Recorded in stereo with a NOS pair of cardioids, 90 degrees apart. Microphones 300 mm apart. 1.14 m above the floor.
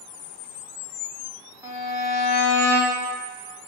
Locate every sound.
1.6 s a violin: 10° right, 0.6 m